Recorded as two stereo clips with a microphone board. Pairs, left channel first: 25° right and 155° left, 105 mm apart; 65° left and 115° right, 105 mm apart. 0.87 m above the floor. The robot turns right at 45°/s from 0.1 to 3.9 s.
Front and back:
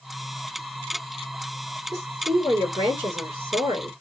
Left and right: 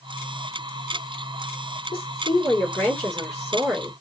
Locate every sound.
1.9 s a woman speaking: 95° left, 3 m; by 3.9 s 175° right, 3 m